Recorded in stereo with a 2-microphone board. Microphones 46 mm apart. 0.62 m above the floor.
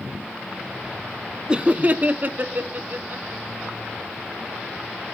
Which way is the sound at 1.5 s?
20° right (ahead or behind).